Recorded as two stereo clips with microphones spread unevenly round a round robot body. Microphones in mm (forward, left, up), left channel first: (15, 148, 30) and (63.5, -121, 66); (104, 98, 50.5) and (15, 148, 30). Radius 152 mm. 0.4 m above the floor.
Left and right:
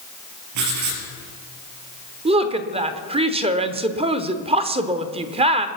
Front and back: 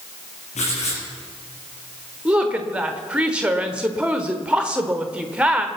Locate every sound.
0.6 s writing: 65° right, 4.5 m
2.2 s a woman speaking: 150° right, 1.0 m